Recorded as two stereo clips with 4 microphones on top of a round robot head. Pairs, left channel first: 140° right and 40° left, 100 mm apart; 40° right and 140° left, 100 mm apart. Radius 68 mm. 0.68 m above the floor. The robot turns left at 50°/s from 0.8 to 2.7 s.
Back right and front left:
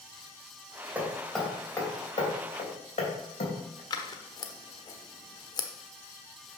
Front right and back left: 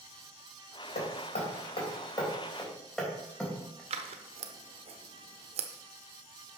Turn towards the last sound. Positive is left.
turn(degrees=165)